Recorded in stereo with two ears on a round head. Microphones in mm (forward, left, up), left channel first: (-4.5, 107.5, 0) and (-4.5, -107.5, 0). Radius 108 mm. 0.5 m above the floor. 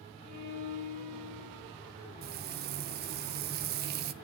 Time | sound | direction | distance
0.2 | a violin | 75° right (ahead or behind) | 6 m
2.2 | frying | 45° right (ahead or behind) | 0.8 m